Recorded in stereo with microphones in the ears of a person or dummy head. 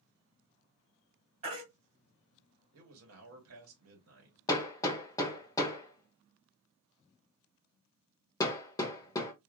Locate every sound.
1.4 s a baby crying: 35° right (ahead or behind), 1.7 m
2.7 s a man speaking: 75° right (ahead or behind), 1.4 m
4.5 s hammering: 20° left (ahead or behind), 0.8 m